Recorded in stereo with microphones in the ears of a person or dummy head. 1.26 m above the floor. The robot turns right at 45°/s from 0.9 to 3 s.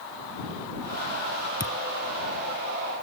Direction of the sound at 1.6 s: 25° left (ahead or behind).